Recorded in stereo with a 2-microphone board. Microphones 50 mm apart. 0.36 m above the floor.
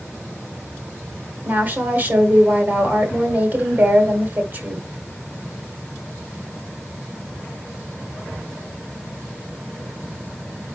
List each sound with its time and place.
1.4 s a woman speaking: 40° right (ahead or behind), 1.7 m